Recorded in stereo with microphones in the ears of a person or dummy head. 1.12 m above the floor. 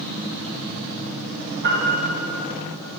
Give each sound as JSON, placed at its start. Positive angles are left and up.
{"t": 1.6, "sound": "a piano", "side_deg": -60, "distance_m": 2.0}